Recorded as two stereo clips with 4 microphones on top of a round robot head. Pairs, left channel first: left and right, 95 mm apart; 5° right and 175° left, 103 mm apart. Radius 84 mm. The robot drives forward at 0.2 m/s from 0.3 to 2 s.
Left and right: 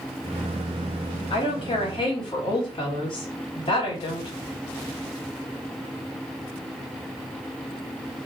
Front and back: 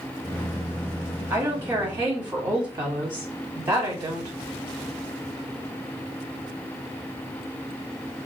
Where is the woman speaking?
120° left, 1.3 m; by 4.3 s 125° left, 1.4 m.